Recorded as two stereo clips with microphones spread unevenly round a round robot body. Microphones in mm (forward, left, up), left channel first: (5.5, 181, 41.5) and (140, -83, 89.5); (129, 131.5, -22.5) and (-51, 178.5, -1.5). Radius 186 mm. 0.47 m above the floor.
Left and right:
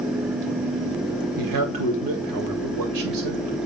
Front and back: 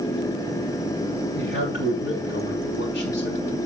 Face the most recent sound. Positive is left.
turn(degrees=-60)